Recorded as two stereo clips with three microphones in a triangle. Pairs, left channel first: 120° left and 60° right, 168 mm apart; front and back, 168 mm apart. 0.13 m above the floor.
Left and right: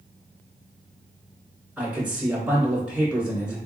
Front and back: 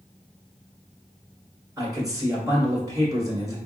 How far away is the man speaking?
About 1.3 m.